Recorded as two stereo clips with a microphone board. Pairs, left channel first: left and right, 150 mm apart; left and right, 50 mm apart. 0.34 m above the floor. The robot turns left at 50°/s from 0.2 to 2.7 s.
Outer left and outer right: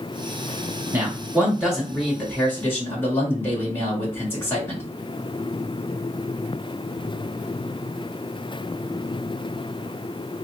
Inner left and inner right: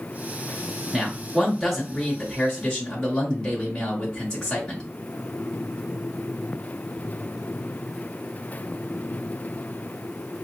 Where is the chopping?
No chopping in this recording.